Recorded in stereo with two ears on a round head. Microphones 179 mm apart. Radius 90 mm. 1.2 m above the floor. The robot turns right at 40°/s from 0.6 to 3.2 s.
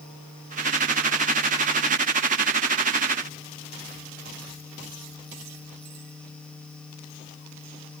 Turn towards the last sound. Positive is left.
No sound to turn to.